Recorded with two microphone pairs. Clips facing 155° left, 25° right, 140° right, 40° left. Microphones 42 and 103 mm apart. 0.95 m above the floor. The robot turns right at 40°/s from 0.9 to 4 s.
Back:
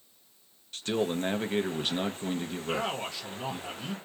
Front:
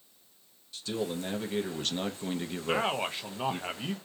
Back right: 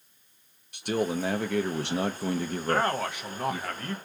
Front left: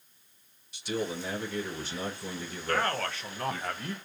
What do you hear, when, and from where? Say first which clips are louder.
0.7 s a man speaking: back 4 dB, back right 5 dB; 165° right, 0.6 m; by 3.7 s 55° right, 0.6 m
2.7 s a man speaking: front 3 dB, back right 2 dB; 85° right, 0.7 m; by 3.9 s 35° right, 0.7 m